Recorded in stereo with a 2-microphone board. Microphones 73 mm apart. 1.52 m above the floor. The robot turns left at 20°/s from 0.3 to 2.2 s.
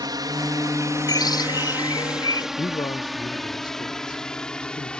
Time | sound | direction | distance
0.0 | a drone | 65° right (ahead or behind) | ?
1.1 | a bird | 70° left (ahead or behind) | ?
2.6 | a man speaking | 70° left (ahead or behind) | ?